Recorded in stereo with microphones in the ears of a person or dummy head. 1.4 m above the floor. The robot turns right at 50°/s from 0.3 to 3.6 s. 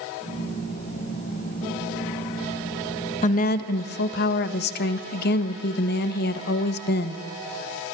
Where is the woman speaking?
45° left (ahead or behind), 1.5 m; by 7.2 s 60° left (ahead or behind), 1.5 m.